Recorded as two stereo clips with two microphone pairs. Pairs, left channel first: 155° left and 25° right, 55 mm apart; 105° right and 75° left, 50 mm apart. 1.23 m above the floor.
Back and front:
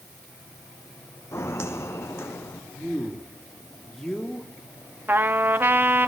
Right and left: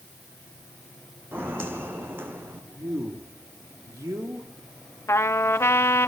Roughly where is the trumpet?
Right.